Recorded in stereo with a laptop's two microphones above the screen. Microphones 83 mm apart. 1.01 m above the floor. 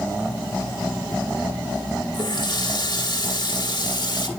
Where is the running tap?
60° left (ahead or behind), 1.7 m.